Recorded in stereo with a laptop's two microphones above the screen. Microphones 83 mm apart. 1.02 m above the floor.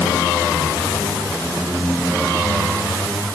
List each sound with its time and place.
Only background noise.